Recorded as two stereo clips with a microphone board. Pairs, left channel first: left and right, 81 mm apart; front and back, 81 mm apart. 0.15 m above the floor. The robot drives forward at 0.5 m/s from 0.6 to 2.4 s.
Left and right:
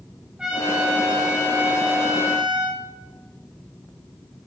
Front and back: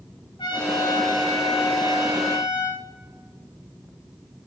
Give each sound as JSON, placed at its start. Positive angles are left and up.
{"t": 0.4, "sound": "a trumpet", "azimuth_deg": -10, "distance_m": 8.0}